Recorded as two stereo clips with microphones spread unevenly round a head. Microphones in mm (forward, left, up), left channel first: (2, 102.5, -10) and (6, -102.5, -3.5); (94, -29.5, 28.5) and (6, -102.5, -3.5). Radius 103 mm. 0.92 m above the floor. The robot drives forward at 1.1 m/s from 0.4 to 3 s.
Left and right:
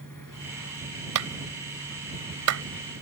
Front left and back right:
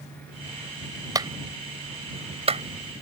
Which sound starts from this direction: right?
A clap, at 1.1 s.